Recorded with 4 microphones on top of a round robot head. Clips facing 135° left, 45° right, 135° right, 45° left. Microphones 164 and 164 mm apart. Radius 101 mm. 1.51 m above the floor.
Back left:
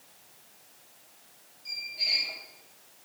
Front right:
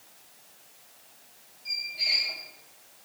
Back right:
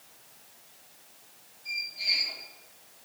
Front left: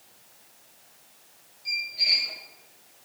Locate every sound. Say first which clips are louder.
1.6 s a squeak: front right 2 dB, front left 4 dB; 40° left, 1.8 m